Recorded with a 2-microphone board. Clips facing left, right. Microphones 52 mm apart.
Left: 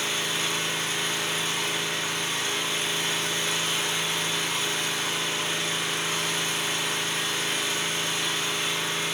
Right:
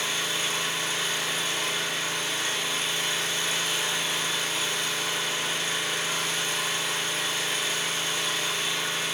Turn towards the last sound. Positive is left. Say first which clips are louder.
# left 1 dB
turn(degrees=50)  # may be behind; listen again after turning